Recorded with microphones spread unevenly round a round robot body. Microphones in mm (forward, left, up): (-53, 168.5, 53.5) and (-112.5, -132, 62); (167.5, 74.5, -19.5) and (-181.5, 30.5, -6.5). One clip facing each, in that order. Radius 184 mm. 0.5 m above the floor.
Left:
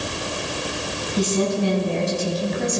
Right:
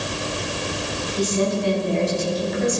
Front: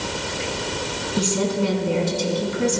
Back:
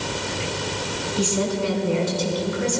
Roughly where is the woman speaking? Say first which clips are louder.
Left 1 dB, front 2 dB; ahead left.